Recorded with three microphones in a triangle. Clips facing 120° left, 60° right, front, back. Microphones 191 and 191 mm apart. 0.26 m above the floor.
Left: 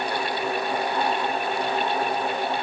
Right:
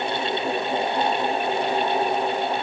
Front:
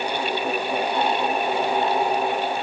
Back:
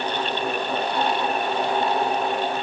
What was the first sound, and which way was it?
Only background noise.